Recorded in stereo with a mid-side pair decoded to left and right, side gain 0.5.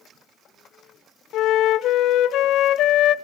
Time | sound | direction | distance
1.3 | a flute | 70° left | 0.5 m